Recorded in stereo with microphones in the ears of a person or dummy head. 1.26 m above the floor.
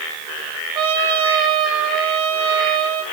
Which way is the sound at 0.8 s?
30° right (ahead or behind).